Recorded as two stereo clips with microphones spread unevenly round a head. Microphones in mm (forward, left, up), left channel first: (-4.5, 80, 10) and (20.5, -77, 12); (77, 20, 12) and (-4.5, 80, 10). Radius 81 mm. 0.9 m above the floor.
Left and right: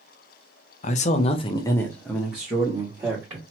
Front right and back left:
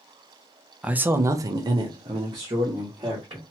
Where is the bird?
No bird in this recording.